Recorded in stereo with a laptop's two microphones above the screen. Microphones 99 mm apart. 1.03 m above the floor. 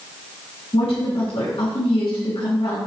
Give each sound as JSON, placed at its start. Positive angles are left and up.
{"t": 0.7, "sound": "a woman speaking", "side_deg": 70, "distance_m": 2.5}